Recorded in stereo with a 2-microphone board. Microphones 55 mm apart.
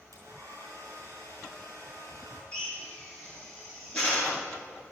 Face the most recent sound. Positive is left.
turn(degrees=15)  # may be behind; listen again after turning